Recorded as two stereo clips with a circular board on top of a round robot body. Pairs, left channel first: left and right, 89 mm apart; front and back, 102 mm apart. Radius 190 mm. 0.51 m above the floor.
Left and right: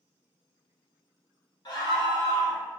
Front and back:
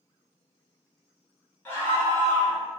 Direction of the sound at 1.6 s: 65° left.